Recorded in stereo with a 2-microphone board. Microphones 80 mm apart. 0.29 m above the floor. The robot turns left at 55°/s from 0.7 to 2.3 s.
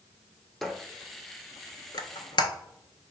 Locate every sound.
0.6 s a squeak: 5° left (ahead or behind), 0.5 m; by 2.5 s 75° left (ahead or behind), 0.5 m